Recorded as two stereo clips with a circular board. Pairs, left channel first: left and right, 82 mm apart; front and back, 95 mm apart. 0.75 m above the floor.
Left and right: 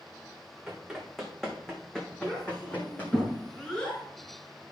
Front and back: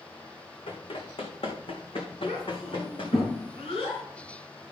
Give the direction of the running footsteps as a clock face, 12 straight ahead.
12 o'clock.